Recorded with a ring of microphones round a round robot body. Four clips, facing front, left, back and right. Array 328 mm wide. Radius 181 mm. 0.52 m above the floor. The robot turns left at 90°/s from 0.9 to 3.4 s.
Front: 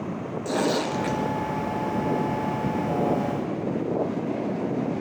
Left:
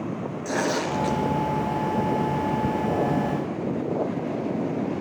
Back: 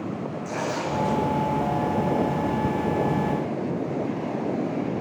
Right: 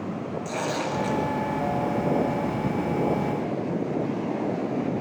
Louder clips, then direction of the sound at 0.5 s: Left 4 dB, front 5 dB; 20° left.